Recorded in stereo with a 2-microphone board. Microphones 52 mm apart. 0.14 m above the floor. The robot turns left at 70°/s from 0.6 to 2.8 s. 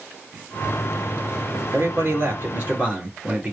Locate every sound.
1.7 s a man speaking: 70° right, 3 m; by 3.5 s 145° right, 3 m